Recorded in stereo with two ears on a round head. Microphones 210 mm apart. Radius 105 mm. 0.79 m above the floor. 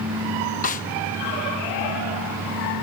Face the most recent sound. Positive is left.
turn(degrees=35)  # may be behind; listen again after turning